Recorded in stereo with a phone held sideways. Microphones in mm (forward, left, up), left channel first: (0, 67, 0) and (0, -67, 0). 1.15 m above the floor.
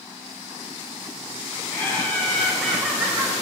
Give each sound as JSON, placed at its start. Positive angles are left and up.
{"t": 1.7, "sound": "laughter", "side_deg": 15, "distance_m": 2.5}